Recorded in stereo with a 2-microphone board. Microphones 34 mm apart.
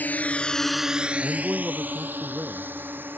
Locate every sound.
0.0 s a drone: 55° left (ahead or behind); by 3.2 s 70° right (ahead or behind)
1.2 s a man speaking: 65° right (ahead or behind)